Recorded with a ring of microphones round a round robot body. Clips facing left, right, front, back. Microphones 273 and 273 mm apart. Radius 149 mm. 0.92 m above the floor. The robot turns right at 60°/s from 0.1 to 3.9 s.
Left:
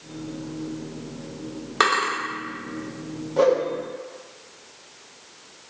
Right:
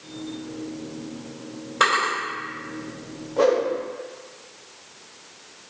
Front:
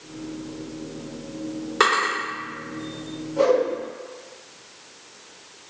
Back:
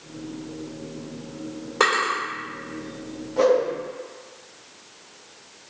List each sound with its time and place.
1.8 s a drawer: 65° left, 1.9 m; by 2.1 s 85° left, 1.9 m
3.4 s a whoosh: 140° left, 0.9 m; by 3.6 s 155° left, 0.9 m